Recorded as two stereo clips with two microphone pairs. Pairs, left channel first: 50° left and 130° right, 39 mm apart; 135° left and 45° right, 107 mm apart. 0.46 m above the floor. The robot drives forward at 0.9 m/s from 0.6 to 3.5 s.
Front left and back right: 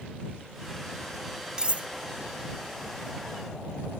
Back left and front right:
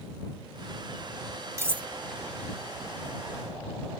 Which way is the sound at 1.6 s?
85° right.